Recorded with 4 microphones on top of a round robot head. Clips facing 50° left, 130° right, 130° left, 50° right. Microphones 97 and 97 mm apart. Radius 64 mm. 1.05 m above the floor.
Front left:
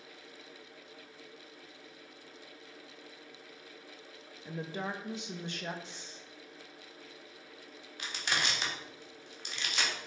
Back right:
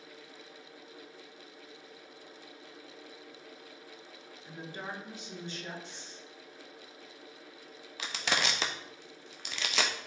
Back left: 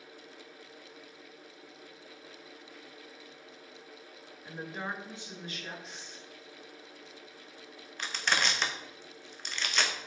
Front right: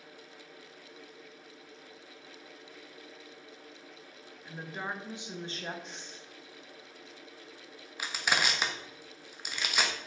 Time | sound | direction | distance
4.5 | a woman speaking | 55° left | 1.2 m
5.8 | breathing | 45° left | 1.3 m
8.0 | crushing | 130° right | 1.1 m